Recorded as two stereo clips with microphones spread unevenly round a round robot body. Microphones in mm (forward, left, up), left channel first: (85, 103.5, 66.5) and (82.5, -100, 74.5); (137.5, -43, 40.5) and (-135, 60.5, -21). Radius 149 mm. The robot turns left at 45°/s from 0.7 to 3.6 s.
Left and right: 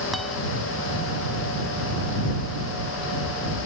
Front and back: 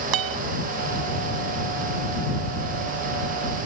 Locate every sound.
0.1 s a guitar: straight behind